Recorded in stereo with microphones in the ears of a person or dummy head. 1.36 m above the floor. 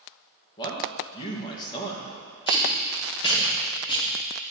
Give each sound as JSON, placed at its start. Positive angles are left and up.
{"t": 0.6, "sound": "a man speaking", "side_deg": 30, "distance_m": 1.5}
{"t": 2.5, "sound": "tape being pulled", "side_deg": 25, "distance_m": 1.7}